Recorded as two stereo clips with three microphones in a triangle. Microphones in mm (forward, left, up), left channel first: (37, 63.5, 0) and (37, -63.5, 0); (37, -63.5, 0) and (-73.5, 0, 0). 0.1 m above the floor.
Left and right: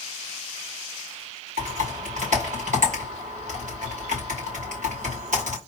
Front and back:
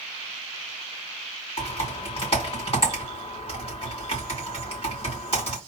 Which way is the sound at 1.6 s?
70° right.